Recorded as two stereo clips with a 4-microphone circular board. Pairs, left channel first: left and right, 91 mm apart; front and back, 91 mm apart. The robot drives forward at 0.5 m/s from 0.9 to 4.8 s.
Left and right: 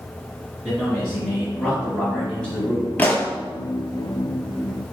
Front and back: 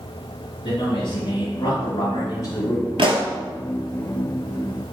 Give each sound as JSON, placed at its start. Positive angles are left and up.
{"t": 0.6, "sound": "a man speaking", "azimuth_deg": 10, "distance_m": 2.0}
{"t": 3.0, "sound": "a pop", "azimuth_deg": 160, "distance_m": 0.8}